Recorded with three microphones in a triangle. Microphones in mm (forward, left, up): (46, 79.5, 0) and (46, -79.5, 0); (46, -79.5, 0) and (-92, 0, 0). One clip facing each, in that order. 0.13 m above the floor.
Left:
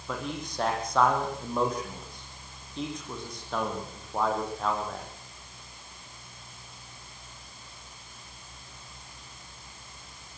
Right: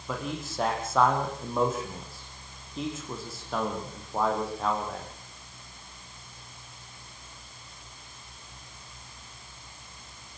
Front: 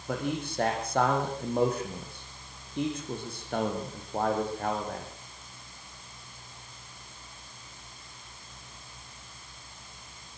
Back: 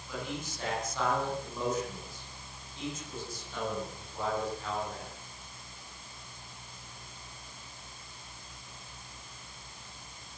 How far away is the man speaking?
About 7.5 m.